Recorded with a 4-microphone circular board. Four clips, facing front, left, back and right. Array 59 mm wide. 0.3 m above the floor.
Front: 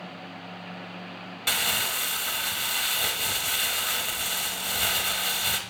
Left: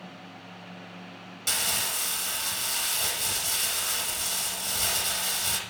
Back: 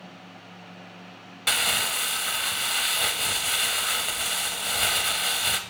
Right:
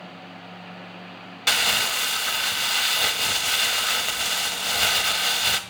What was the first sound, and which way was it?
Crumpling, 100° right.